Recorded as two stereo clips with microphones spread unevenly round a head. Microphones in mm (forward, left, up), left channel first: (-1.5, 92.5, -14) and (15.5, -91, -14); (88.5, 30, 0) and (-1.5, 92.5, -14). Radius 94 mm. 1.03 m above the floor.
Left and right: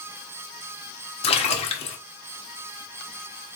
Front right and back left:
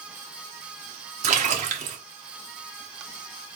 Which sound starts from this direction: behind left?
A splash, at 1.2 s.